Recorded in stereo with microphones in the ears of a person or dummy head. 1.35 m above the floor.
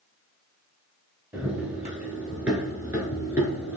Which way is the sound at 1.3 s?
10° right (ahead or behind).